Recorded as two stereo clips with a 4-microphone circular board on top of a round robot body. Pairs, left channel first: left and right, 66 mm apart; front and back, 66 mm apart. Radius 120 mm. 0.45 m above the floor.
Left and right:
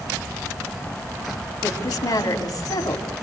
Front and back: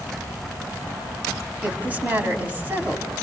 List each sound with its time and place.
1.6 s a woman speaking: 115° left, 4.5 m